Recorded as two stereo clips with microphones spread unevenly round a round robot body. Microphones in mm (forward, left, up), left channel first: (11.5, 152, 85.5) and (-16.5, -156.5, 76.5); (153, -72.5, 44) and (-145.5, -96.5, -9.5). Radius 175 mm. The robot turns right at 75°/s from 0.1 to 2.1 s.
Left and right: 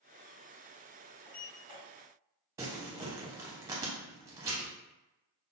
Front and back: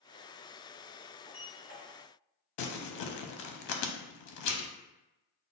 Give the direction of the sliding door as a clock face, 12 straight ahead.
9 o'clock.